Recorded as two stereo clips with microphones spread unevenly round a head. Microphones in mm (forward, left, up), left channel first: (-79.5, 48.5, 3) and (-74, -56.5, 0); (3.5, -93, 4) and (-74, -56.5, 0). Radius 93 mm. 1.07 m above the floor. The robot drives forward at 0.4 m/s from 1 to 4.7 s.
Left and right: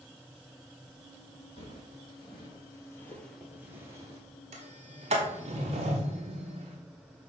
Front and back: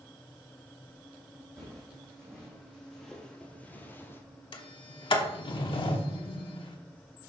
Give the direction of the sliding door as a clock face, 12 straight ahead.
1 o'clock.